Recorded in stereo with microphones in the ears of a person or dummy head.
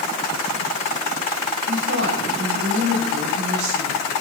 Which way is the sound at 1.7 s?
70° right (ahead or behind).